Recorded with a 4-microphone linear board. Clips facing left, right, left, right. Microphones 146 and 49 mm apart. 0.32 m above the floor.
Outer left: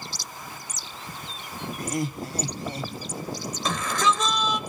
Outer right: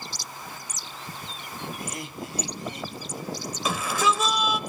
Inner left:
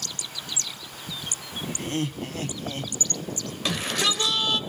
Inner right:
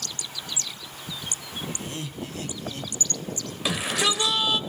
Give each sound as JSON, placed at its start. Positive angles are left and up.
{"t": 1.8, "sound": "laughter", "side_deg": 45, "distance_m": 3.0}
{"t": 3.6, "sound": "a shout", "side_deg": -10, "distance_m": 1.2}